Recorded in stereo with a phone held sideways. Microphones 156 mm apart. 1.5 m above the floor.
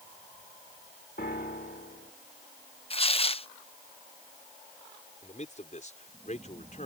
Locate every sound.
1.2 s a piano: 75° left (ahead or behind)
2.9 s tearing paper: 40° left (ahead or behind)
5.2 s a man speaking: 50° left (ahead or behind)